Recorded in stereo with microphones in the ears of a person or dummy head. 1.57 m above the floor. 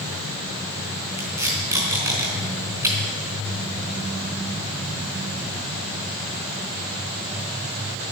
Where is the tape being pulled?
15° right (ahead or behind), 4 m.